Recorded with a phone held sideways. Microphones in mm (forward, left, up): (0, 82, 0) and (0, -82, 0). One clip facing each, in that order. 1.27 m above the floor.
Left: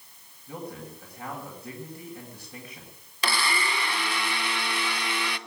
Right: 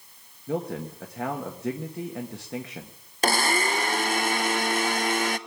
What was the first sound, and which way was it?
A man speaking, 85° right.